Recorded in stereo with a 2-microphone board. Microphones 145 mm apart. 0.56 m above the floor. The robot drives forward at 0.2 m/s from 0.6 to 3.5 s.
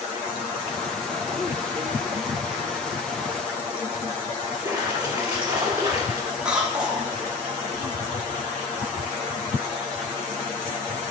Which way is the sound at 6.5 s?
5° right (ahead or behind).